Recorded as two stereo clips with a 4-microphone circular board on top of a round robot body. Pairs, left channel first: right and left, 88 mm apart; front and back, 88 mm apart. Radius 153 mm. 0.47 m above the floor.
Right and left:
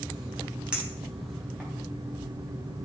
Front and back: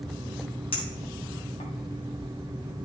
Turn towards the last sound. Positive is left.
turn(degrees=10)